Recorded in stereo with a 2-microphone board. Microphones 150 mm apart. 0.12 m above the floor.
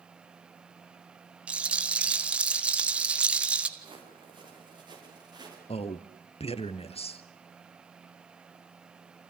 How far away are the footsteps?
About 9 m.